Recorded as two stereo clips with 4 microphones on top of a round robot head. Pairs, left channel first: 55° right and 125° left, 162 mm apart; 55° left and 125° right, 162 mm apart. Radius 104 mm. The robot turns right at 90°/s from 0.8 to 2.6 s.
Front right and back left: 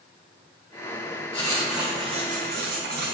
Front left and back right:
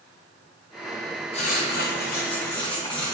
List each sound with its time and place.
1.3 s writing: straight ahead, 1.2 m; by 3.1 s 115° left, 1.2 m